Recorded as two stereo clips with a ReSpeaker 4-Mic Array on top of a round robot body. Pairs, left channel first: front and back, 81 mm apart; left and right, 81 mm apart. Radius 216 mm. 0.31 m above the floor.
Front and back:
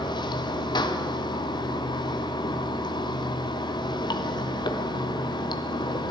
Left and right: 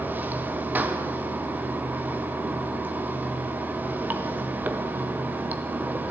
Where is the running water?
25° right, 0.9 m.